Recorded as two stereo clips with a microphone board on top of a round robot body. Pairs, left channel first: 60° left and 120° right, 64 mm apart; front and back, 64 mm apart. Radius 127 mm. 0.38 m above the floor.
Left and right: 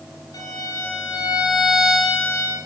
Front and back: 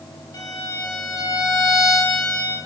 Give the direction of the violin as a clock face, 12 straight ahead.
11 o'clock.